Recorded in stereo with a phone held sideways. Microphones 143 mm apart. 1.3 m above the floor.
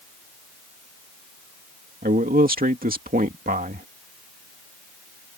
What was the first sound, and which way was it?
A man speaking, 80° right.